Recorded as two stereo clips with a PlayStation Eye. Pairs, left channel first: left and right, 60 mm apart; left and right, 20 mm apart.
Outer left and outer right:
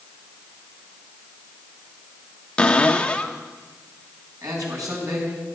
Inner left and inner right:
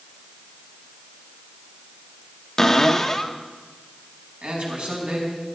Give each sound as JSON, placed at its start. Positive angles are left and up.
{"t": 2.6, "sound": "a cupboard door", "side_deg": 20, "distance_m": 1.0}
{"t": 4.4, "sound": "a man speaking", "side_deg": -75, "distance_m": 5.0}